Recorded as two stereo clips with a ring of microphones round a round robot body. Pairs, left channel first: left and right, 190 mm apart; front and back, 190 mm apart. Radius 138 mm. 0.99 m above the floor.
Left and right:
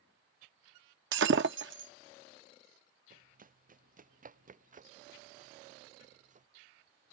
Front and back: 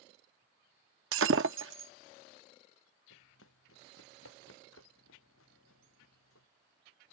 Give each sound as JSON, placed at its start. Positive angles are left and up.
{"t": 1.1, "sound": "breaking glass", "azimuth_deg": -140}
{"t": 3.1, "sound": "running footsteps", "azimuth_deg": -45}